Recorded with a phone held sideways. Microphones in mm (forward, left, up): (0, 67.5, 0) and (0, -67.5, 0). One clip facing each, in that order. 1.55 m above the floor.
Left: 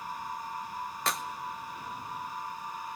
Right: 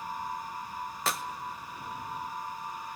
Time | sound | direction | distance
1.1 | a clap | centre (ahead or behind) | 1.1 m